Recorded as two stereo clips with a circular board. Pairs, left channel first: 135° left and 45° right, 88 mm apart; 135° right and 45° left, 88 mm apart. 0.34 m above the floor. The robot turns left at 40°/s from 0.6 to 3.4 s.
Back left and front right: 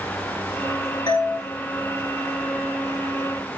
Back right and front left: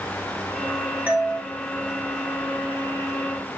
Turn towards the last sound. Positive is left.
turn(degrees=20)